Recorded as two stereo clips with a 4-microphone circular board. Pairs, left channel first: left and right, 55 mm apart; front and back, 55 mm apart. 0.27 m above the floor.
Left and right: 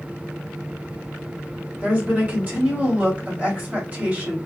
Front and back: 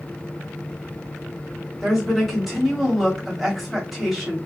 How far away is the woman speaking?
About 1.2 m.